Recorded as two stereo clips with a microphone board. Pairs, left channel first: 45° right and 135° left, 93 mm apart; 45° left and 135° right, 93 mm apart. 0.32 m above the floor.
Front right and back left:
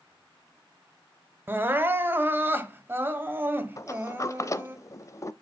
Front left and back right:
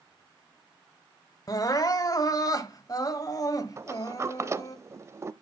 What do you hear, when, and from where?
1.5 s crying: 75° left, 1.2 m
3.8 s a sliding door: 85° right, 0.5 m